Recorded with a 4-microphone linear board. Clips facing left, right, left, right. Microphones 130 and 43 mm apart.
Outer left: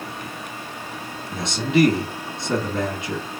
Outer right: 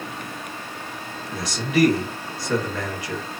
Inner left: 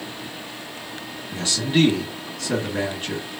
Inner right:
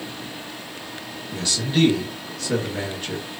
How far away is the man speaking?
About 1.6 m.